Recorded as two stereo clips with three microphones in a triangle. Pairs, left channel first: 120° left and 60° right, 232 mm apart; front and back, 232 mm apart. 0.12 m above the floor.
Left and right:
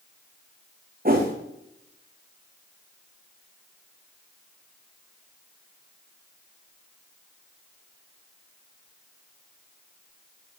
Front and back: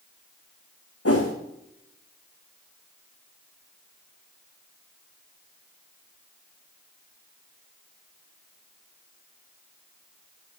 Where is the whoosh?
10° right, 1.9 m.